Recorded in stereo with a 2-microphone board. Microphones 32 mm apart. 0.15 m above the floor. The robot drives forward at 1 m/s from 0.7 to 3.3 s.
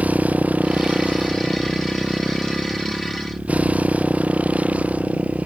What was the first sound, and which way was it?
A motorcycle, 55° right (ahead or behind).